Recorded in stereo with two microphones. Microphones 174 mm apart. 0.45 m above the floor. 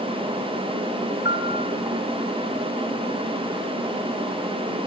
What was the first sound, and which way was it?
A piano, 75° left (ahead or behind).